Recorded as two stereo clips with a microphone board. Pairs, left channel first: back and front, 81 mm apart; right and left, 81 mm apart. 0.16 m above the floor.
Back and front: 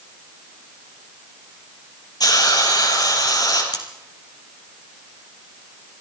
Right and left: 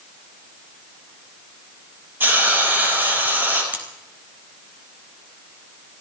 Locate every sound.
2.2 s a hiss: 150° left, 4.5 m
3.7 s cutlery clinking: 160° left, 3 m